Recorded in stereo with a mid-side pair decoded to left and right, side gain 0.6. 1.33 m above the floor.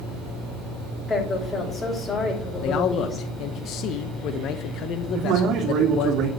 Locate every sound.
1.1 s a woman speaking: 25° left, 7 m
2.6 s a man speaking: 60° left, 1.0 m
5.1 s a man speaking: 60° right, 2.5 m